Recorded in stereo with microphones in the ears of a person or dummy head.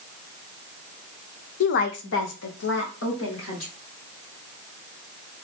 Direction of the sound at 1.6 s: 55° left (ahead or behind).